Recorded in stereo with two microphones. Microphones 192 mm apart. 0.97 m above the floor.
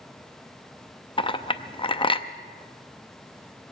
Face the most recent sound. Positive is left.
turn(degrees=30)  # may be behind; listen again after turning